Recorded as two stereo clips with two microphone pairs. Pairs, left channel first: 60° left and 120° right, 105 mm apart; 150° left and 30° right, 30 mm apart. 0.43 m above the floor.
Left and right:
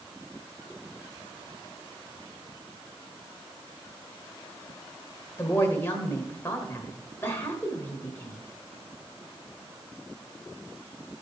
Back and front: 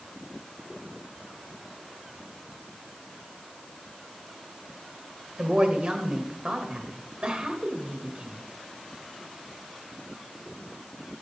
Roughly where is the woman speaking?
Ahead.